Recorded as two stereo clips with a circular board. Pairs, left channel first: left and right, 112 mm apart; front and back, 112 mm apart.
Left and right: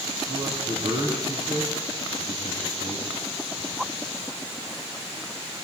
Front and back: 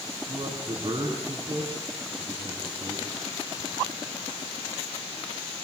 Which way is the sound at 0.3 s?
135° right.